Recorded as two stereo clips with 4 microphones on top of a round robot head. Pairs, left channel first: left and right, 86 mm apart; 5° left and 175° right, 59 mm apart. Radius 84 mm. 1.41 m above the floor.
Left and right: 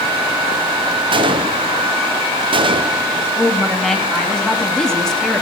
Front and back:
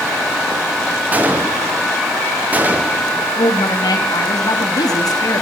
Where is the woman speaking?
5° left, 3.5 m.